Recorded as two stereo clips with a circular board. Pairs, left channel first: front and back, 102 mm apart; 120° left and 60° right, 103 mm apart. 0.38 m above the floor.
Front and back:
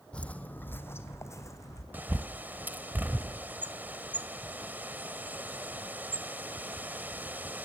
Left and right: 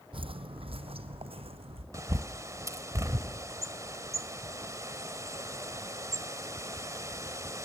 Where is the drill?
I don't hear a drill.